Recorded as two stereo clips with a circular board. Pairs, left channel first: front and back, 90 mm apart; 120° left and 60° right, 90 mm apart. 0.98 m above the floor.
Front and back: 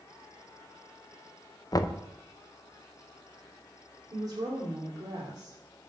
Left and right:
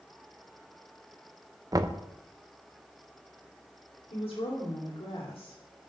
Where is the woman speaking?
135° left, 3 m.